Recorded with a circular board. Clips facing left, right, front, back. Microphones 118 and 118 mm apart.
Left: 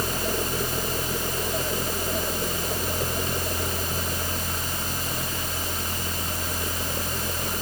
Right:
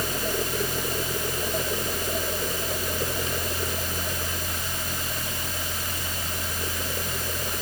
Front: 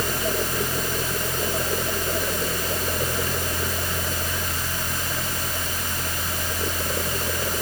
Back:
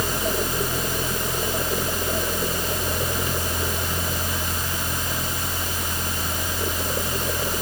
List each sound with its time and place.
Only background noise.